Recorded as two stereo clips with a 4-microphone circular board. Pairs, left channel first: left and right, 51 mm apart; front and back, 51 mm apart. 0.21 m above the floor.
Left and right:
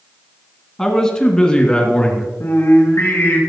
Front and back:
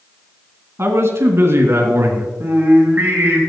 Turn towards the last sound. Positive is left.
turn(degrees=125)